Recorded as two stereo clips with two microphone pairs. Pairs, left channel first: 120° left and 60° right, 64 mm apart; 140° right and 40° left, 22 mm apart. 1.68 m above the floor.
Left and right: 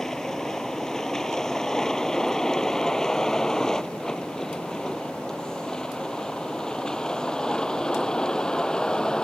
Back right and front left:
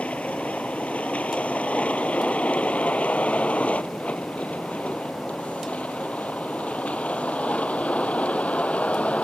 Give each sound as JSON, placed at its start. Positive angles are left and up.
{"t": 0.0, "sound": "a vehicle", "azimuth_deg": -155}